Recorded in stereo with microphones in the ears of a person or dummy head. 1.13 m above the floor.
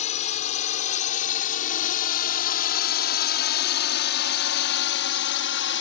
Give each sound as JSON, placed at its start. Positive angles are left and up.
{"t": 0.0, "sound": "a drone", "side_deg": 40}